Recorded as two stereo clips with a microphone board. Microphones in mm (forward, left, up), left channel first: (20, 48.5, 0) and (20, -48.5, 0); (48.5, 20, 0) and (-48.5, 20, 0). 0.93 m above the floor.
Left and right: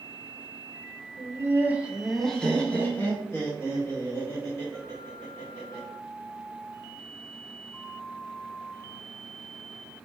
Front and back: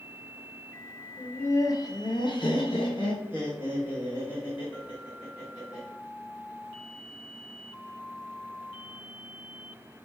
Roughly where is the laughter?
Ahead right.